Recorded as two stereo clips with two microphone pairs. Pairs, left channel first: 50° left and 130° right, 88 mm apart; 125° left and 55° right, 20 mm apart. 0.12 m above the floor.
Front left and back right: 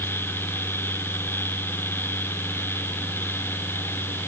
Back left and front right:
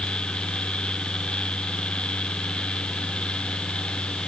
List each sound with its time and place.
Only background noise.